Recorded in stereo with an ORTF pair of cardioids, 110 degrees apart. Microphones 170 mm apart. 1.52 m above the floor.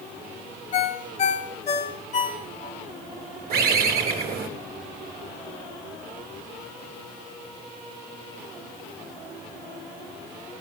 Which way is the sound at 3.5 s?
60° right.